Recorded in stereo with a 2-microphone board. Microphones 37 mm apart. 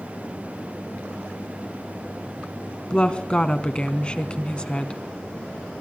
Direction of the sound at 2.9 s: 25° left (ahead or behind).